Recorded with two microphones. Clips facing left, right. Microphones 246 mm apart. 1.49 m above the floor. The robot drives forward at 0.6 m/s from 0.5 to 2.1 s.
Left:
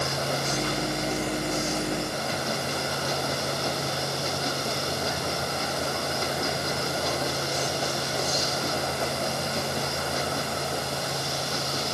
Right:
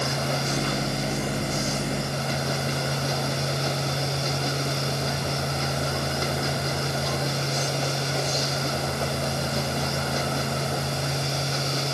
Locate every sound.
Only background noise.